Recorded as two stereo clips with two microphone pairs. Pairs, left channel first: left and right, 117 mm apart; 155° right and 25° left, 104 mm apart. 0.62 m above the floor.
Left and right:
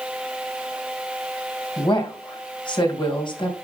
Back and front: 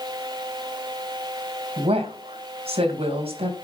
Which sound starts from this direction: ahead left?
A woman speaking, at 1.8 s.